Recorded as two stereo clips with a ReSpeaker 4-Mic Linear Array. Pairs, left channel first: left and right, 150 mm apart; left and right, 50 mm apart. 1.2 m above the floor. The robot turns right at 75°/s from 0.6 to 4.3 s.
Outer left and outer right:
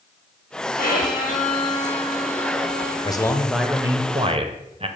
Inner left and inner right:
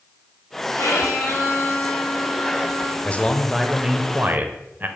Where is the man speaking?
140° left, 0.7 m; by 4.9 s 125° right, 0.7 m.